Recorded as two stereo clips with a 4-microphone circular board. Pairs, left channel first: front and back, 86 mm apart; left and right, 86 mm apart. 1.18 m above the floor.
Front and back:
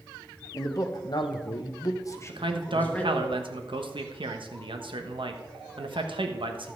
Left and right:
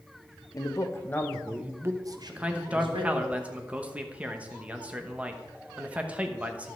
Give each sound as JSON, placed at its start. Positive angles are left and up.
{"t": 0.5, "sound": "a man speaking", "azimuth_deg": 50, "distance_m": 1.5}
{"t": 2.3, "sound": "a man speaking", "azimuth_deg": -165, "distance_m": 1.1}